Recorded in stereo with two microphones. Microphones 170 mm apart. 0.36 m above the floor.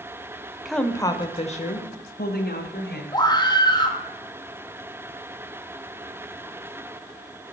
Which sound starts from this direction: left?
A scream, at 3.1 s.